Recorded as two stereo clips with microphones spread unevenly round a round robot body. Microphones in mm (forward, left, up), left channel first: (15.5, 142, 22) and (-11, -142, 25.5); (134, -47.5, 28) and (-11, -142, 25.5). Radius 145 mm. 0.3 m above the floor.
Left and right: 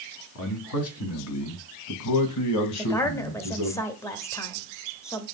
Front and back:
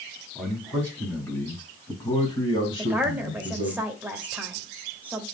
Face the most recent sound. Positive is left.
turn(degrees=145)